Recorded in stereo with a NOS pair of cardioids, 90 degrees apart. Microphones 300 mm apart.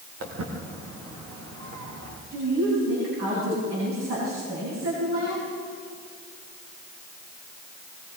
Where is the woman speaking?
50° right, 8.5 m.